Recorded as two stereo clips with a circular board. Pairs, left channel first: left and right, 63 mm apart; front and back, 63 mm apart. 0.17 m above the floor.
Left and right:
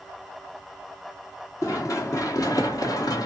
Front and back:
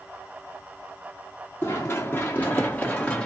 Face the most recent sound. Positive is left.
turn(degrees=75)